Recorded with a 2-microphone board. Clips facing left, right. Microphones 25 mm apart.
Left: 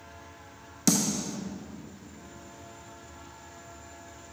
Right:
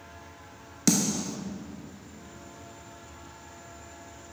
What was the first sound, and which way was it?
A snare drum, 10° right (ahead or behind).